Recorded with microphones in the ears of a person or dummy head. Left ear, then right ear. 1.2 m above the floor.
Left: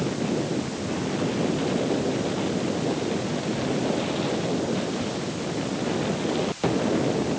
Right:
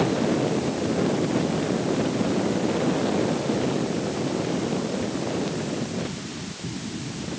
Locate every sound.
Only background noise.